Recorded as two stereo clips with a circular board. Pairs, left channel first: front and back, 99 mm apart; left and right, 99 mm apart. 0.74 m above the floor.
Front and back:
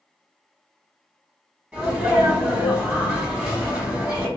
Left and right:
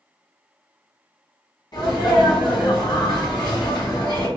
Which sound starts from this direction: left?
A sneeze, at 1.7 s.